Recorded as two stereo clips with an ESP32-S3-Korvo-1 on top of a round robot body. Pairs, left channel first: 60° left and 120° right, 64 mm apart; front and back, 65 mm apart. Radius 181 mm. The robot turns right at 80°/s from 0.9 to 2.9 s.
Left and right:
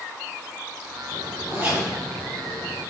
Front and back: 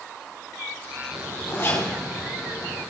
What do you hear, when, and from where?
1.1 s a zipper: 95° right, 4.5 m; by 2.8 s 40° left, 4.5 m